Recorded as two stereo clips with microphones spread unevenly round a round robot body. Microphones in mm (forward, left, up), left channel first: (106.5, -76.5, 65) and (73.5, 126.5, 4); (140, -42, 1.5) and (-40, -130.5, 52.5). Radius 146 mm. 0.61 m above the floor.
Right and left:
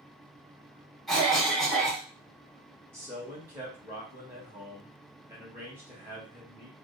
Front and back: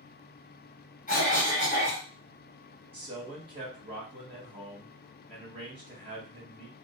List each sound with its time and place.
1.1 s a cough: 20° left, 1.4 m
2.9 s a man speaking: 140° left, 1.2 m